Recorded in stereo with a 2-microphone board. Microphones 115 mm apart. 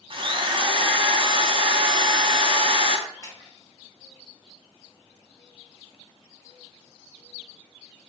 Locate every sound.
0.1 s a drill: 50° right (ahead or behind), 0.6 m
3.1 s a splash: 35° left (ahead or behind), 2 m